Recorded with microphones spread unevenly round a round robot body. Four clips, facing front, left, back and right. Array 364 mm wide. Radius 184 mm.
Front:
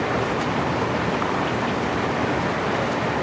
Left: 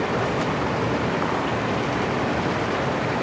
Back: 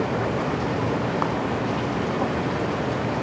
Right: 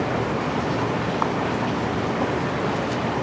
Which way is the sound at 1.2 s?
155° right.